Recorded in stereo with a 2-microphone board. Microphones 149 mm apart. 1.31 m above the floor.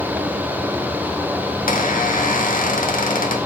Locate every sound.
1.7 s a squeak: 65° left (ahead or behind), 1.2 m